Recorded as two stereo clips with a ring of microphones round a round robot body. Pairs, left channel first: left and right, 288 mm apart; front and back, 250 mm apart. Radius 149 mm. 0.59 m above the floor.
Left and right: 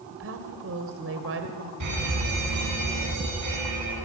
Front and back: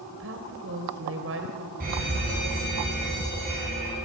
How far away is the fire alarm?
About 8.5 m.